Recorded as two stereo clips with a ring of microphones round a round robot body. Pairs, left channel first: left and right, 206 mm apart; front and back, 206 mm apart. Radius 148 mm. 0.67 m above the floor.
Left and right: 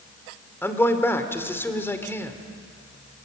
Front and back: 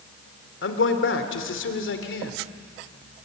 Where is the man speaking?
10° left, 2.5 m.